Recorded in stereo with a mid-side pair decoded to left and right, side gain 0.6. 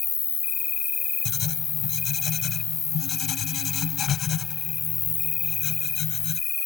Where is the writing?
45° left.